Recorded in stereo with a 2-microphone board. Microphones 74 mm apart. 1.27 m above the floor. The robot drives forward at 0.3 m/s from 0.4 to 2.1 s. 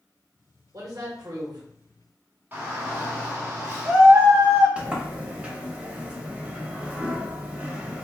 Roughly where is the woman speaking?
Right.